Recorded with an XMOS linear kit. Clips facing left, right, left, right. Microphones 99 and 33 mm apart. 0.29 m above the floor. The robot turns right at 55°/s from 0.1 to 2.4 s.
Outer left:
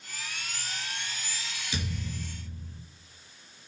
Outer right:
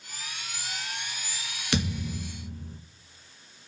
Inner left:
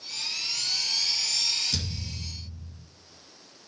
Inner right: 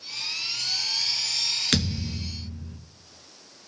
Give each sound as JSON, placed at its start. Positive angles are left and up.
{"t": 1.7, "sound": "a thud", "azimuth_deg": -105, "distance_m": 1.5}